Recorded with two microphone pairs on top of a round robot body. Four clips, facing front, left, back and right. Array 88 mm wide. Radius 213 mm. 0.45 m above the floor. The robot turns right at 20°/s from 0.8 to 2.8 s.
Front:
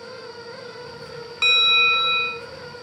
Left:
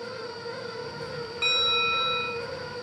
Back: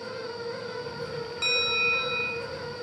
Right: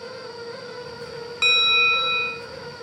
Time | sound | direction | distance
1.4 | a bell | 15° right | 3.5 m